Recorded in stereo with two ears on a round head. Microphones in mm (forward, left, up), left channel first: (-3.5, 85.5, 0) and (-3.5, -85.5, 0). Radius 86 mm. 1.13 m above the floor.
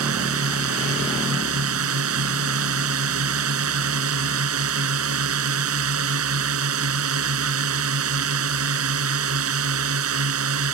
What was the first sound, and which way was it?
A drone, 85° right.